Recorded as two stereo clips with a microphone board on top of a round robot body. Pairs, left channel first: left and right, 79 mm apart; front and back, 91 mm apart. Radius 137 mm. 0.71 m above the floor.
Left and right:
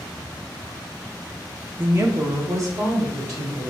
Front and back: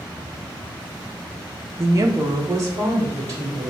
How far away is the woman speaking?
About 0.7 m.